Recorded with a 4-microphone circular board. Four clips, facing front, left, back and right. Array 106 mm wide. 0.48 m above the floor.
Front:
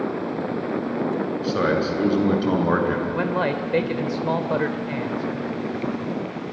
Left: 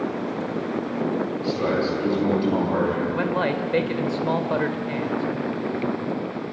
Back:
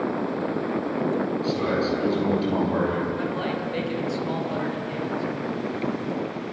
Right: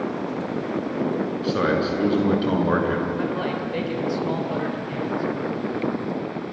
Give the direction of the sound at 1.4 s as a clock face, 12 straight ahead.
1 o'clock.